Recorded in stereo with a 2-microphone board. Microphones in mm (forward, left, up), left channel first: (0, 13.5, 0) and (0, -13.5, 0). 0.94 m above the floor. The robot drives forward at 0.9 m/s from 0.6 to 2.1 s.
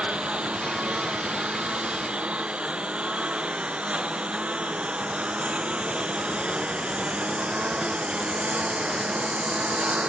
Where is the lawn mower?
55° right (ahead or behind).